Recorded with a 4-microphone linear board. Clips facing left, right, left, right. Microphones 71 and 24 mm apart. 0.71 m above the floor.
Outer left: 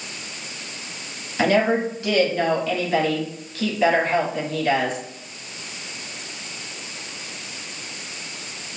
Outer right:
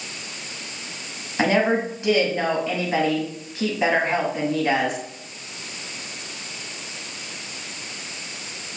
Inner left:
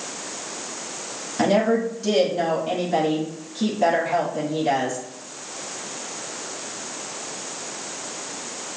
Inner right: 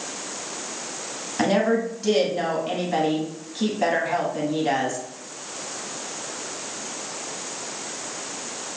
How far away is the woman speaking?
About 1.3 m.